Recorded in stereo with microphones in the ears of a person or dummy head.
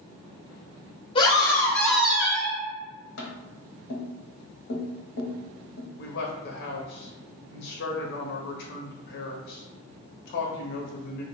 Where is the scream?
25° left (ahead or behind), 0.9 m; by 2.6 s 35° right (ahead or behind), 0.7 m.